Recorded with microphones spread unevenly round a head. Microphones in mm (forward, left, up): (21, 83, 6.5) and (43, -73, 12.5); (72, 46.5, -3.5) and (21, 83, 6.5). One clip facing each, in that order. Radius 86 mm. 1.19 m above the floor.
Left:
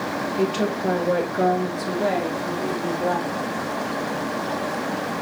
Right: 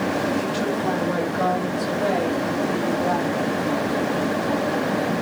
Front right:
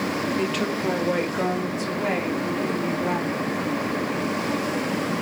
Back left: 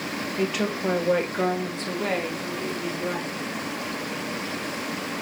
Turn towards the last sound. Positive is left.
turn(degrees=25)